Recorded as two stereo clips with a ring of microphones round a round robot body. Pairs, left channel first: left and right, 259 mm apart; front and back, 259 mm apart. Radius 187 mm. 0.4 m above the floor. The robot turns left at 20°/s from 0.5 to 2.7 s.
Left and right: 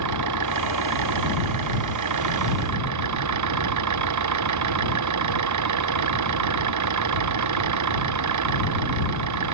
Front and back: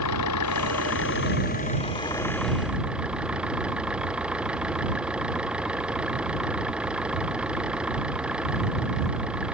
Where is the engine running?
50° right; by 9.5 s 95° right.